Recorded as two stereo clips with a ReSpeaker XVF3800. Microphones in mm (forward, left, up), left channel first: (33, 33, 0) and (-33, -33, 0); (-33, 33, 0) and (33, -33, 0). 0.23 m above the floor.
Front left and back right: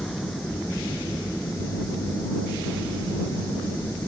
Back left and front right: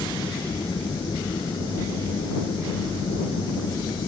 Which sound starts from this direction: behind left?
An aircraft, at 0.0 s.